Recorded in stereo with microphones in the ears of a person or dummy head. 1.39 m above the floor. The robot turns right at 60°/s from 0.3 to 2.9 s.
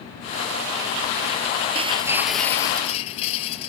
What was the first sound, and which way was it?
Breaking glass, 35° right.